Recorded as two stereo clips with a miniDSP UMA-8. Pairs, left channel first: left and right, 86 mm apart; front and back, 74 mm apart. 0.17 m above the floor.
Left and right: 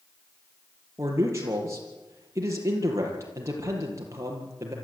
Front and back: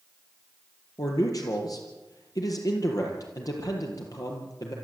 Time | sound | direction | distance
1.0 | a man speaking | 35° right | 5.5 m